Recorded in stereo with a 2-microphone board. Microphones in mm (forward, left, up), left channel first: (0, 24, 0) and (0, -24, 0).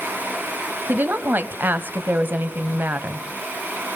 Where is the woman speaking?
40° right (ahead or behind), 1.4 m.